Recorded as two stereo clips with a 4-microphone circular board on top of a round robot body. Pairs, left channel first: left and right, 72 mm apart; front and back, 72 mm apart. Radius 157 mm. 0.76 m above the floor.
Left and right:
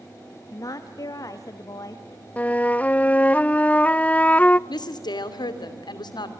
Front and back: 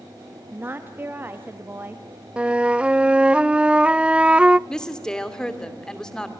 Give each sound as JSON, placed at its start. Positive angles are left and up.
{"t": 0.5, "sound": "a woman speaking", "azimuth_deg": 120, "distance_m": 1.4}
{"t": 2.4, "sound": "a flute", "azimuth_deg": 125, "distance_m": 0.7}
{"t": 4.7, "sound": "a woman speaking", "azimuth_deg": 80, "distance_m": 3.0}